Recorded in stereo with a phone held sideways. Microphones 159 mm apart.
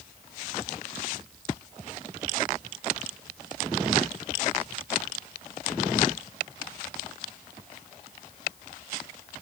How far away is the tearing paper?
No tearing paper in this recording.